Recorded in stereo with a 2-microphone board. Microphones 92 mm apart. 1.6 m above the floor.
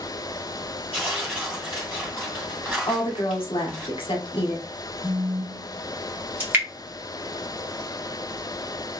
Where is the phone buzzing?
35° left (ahead or behind), 1.5 m.